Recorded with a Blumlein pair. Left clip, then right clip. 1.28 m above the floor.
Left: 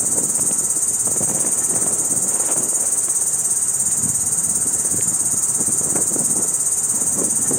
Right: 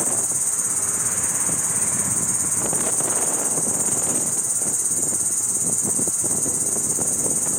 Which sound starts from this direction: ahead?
An insect, at 0.0 s.